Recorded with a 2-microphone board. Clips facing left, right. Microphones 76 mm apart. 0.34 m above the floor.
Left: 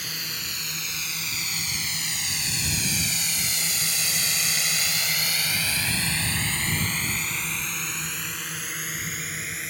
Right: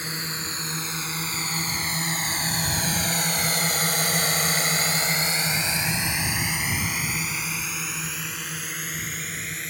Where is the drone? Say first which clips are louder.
Right 4 dB; 30° right (ahead or behind); by 9.7 s 5° left (ahead or behind).